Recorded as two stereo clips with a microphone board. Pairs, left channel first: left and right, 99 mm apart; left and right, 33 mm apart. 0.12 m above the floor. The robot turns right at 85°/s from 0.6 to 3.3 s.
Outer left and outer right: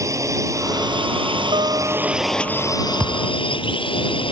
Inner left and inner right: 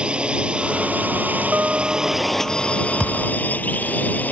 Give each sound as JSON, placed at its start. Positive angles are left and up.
{"t": 0.0, "sound": "a drone", "azimuth_deg": -140}
{"t": 1.5, "sound": "a guitar", "azimuth_deg": -65}
{"t": 3.0, "sound": "a thud", "side_deg": -15}